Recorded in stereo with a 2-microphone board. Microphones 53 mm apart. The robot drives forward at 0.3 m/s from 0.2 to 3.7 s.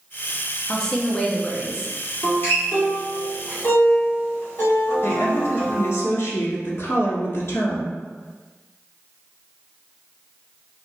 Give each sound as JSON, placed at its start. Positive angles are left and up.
{"t": 0.7, "sound": "a woman speaking", "side_deg": 15, "distance_m": 0.8}
{"t": 2.2, "sound": "a guitar", "side_deg": 45, "distance_m": 1.4}
{"t": 5.0, "sound": "a woman speaking", "side_deg": 60, "distance_m": 1.2}